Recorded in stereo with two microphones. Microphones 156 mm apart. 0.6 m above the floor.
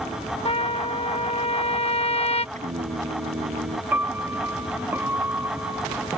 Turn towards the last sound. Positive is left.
turn(degrees=-10)  # may be behind; listen again after turning